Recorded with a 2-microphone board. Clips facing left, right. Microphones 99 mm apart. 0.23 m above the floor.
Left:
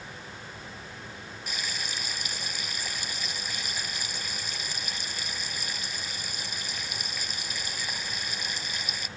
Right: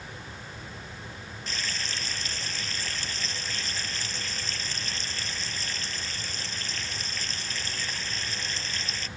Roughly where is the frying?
Centre.